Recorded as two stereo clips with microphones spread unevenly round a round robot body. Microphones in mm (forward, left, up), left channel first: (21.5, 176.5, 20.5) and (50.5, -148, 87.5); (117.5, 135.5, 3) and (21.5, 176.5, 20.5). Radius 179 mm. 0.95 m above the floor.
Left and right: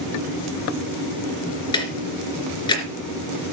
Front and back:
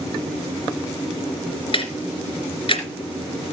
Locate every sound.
1.7 s ticking: 15° left, 3 m